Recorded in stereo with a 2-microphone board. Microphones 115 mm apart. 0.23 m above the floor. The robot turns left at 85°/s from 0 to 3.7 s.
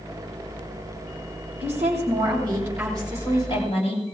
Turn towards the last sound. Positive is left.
turn(degrees=115)